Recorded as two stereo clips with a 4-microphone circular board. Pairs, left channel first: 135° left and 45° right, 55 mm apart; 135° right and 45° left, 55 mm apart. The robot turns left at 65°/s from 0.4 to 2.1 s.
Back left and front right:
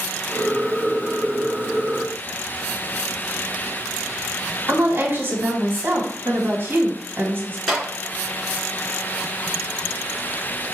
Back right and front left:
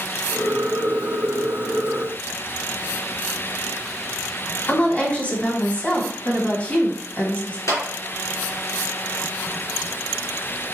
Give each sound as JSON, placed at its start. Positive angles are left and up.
{"t": 4.7, "sound": "a woman speaking", "azimuth_deg": -80, "distance_m": 1.5}
{"t": 7.7, "sound": "a clap", "azimuth_deg": -140, "distance_m": 2.5}